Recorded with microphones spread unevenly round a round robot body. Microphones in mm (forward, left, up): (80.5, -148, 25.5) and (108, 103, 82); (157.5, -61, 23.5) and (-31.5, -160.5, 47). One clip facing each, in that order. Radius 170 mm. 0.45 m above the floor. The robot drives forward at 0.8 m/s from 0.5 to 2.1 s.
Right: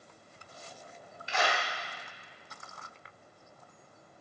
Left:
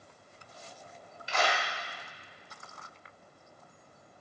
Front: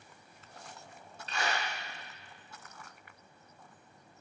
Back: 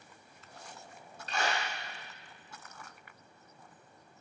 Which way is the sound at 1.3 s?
145° left.